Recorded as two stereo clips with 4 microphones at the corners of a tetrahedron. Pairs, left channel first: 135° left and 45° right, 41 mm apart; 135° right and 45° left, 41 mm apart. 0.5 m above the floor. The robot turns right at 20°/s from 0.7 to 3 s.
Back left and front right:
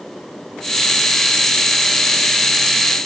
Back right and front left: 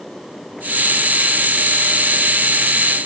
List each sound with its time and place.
Only background noise.